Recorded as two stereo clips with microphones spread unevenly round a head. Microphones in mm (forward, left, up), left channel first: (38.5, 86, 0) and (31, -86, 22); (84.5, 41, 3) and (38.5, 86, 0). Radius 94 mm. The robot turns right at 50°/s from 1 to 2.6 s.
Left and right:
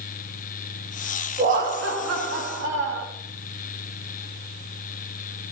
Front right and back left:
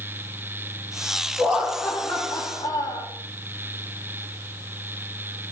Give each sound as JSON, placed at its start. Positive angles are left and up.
{"t": 1.4, "sound": "laughter", "azimuth_deg": -150, "distance_m": 4.0}